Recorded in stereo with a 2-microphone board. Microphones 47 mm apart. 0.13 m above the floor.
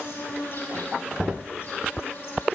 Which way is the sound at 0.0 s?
60° left (ahead or behind).